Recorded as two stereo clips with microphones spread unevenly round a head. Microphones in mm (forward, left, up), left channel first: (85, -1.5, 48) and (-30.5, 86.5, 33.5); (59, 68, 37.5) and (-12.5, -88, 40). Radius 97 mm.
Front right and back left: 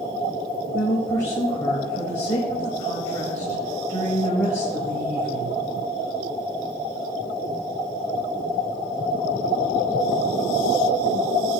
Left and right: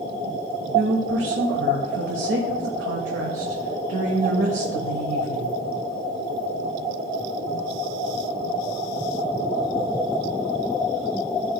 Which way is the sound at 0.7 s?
115° right.